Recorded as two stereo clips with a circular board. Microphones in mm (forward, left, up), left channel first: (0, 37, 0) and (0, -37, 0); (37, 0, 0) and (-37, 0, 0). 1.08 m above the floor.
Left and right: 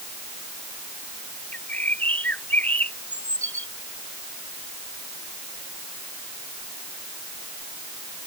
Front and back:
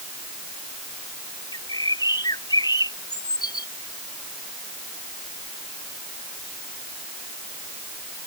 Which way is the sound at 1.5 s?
25° left.